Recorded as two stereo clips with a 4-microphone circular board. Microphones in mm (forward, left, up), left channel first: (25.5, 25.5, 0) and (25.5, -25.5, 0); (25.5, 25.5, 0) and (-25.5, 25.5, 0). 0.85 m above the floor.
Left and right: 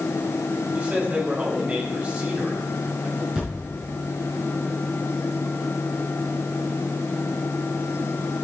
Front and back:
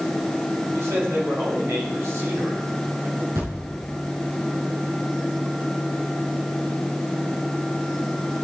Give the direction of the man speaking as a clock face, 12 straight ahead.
5 o'clock.